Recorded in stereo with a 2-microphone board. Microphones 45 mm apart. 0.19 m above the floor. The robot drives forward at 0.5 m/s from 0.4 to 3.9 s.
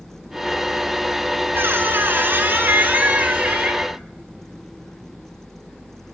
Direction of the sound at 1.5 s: 65° right (ahead or behind).